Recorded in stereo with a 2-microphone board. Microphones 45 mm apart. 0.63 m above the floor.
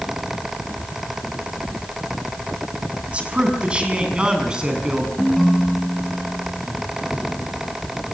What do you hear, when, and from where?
3.1 s a man speaking: 30° right (ahead or behind), 6 m; by 5.1 s 20° right (ahead or behind), 8 m
5.2 s a ringtone: 5° left (ahead or behind), 2.5 m